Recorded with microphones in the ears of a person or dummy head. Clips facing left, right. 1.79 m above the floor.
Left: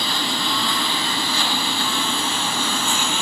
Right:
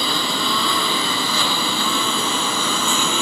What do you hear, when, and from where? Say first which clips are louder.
0.0 s a lawn mower: right 2 dB; 85° right